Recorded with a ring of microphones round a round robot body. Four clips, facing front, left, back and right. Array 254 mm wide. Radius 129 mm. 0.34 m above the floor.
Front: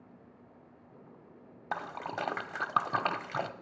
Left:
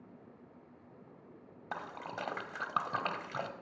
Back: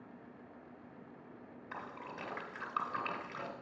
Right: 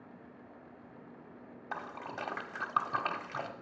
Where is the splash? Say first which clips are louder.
Even, front 9 dB; 5° left, 0.9 m.